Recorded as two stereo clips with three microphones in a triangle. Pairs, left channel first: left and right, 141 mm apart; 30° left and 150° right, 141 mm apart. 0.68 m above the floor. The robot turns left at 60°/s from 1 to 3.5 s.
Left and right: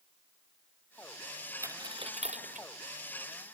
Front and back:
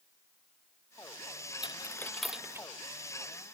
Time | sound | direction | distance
1.6 | a dropped coin | 20° right | ?